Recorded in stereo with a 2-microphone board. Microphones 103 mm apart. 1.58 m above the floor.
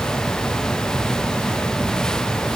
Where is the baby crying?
No baby crying in this recording.